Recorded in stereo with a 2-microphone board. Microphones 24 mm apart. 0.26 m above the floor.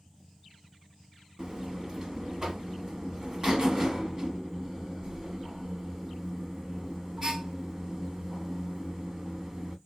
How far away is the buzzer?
About 0.8 m.